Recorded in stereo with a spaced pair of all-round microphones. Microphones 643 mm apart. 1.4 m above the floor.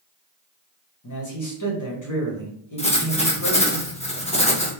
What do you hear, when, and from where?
1.0 s a man speaking: 30° left (ahead or behind), 1.1 m
2.8 s writing: 10° left (ahead or behind), 0.7 m